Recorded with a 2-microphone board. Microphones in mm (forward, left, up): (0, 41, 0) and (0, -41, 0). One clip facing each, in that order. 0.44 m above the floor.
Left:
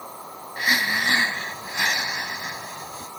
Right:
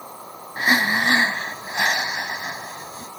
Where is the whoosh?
I don't hear a whoosh.